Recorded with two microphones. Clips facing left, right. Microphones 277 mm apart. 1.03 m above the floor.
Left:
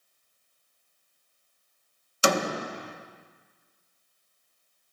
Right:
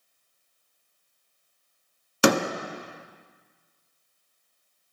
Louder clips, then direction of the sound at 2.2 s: Right 5 dB; 65° right (ahead or behind).